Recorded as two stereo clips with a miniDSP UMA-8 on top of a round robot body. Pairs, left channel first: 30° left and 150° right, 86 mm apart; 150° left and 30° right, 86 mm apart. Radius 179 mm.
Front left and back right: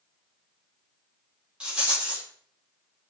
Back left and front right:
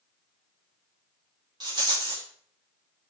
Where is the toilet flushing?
No toilet flushing in this recording.